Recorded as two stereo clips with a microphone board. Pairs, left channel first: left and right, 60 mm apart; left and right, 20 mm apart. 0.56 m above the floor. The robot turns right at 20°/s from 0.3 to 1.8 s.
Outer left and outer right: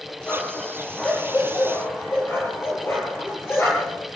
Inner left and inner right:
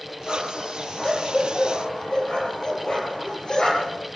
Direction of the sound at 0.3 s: 15° left (ahead or behind).